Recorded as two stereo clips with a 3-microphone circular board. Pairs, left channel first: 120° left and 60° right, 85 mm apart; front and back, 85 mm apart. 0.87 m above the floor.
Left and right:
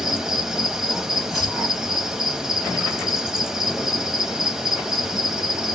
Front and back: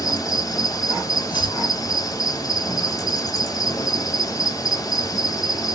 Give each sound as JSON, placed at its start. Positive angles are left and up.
{"t": 0.0, "sound": "an insect", "azimuth_deg": 20, "distance_m": 0.9}
{"t": 1.3, "sound": "chopping", "azimuth_deg": 25, "distance_m": 3.0}